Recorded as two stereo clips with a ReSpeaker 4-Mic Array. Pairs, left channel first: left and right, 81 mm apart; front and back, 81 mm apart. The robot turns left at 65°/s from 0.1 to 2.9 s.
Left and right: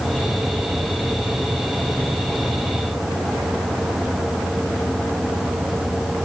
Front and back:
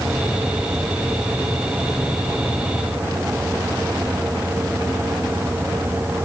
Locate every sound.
Only background noise.